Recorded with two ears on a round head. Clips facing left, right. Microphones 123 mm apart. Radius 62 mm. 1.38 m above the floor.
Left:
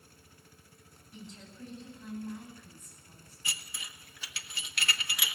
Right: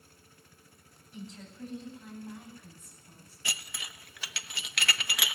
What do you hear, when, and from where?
1.1 s a woman speaking: centre (ahead or behind), 9 m; by 3.4 s 5° right (ahead or behind), 11 m
3.5 s dishes clattering: 55° right (ahead or behind), 0.7 m